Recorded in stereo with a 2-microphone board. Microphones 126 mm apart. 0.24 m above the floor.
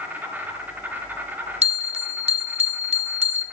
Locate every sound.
0.0 s an insect: 15° right (ahead or behind), 2 m
1.6 s a bell: 55° right (ahead or behind), 0.8 m